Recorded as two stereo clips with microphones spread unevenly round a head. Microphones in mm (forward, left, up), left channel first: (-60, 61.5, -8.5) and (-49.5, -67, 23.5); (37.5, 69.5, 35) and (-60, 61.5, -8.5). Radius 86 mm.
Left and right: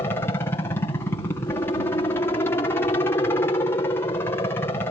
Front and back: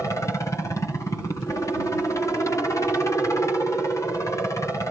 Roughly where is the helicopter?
Left.